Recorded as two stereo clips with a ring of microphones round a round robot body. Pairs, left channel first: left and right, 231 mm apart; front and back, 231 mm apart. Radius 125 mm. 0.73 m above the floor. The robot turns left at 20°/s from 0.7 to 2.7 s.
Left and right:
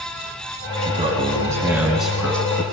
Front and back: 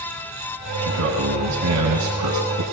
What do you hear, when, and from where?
0.8 s a man speaking: 150° right, 6.5 m; by 2.6 s 170° left, 6.5 m